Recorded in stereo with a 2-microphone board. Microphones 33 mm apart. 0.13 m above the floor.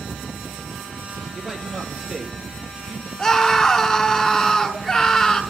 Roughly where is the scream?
Left.